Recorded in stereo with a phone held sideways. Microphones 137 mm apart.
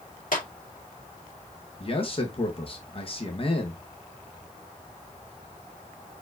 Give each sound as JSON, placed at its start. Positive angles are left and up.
{"t": 0.3, "sound": "a clap", "side_deg": 85, "distance_m": 2.0}
{"t": 1.8, "sound": "a man speaking", "side_deg": 40, "distance_m": 1.1}